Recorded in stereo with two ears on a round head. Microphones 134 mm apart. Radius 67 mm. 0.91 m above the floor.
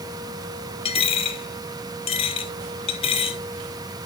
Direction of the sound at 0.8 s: 40° left (ahead or behind).